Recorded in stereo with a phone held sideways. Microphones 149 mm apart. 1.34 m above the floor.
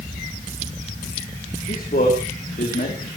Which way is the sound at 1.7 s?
85° left.